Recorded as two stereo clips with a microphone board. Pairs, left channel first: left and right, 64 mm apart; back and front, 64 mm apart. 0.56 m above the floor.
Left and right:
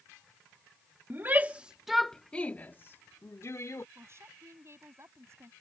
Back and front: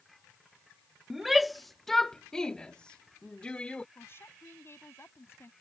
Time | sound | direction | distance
1.1 | a shout | 85° right | ?
4.0 | a woman speaking | 130° right | ?